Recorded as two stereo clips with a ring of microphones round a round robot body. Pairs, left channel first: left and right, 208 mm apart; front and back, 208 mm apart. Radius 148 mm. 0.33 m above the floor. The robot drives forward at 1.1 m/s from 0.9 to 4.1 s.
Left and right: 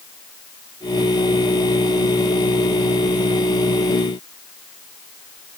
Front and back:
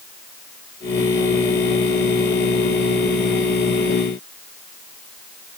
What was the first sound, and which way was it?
Only background noise.